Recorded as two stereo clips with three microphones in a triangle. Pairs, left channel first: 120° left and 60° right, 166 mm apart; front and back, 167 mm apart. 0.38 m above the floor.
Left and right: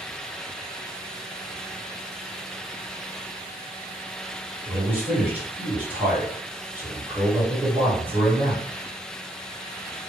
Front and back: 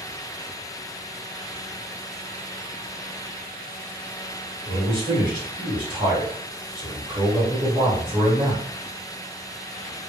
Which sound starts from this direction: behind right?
A man speaking, at 4.7 s.